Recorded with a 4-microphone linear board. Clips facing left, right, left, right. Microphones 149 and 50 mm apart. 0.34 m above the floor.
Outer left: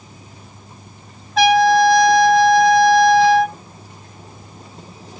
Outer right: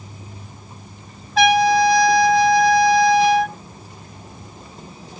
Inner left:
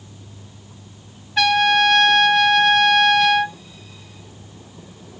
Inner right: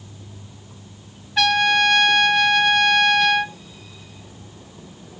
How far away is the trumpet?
About 0.6 m.